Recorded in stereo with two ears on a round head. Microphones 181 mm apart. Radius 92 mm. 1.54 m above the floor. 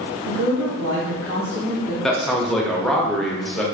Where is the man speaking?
Centre (ahead or behind), 0.5 m.